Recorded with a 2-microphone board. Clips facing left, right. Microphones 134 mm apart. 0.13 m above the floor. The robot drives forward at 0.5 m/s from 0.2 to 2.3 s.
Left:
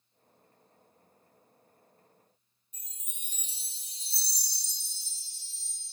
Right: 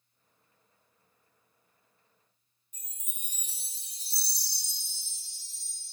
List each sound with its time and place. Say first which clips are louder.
2.7 s a chime: even; 25° left (ahead or behind), 0.7 m